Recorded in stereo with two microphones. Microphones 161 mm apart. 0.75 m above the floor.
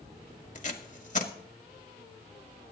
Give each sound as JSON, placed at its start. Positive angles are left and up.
{"t": 0.6, "sound": "tape being pulled", "side_deg": 45, "distance_m": 1.5}